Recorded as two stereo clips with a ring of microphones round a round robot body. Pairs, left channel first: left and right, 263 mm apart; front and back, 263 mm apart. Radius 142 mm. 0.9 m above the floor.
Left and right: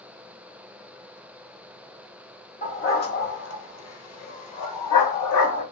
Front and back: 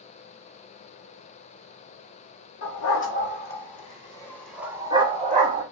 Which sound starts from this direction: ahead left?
A dog barking, at 2.6 s.